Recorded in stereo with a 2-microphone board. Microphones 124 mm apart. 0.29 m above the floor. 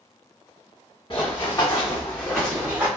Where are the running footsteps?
40° left (ahead or behind), 1.5 m; by 2.9 s 15° right (ahead or behind), 1.0 m.